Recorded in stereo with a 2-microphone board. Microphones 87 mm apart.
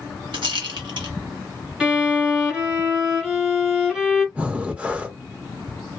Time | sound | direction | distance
0.3 | a rattle | 75° right (ahead or behind) | 0.9 m
1.8 | a violin | 10° right (ahead or behind) | 1.2 m
4.3 | breathing | 15° right (ahead or behind) | 0.5 m